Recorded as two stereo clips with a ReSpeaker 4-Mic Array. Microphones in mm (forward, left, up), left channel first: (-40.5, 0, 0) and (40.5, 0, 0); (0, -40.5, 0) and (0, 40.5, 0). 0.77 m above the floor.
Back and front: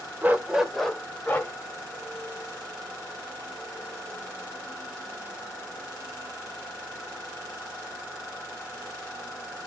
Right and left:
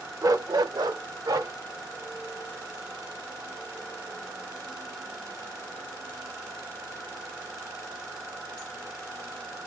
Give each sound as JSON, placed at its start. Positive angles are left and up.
{"t": 0.2, "sound": "a dog barking", "azimuth_deg": 65, "distance_m": 0.7}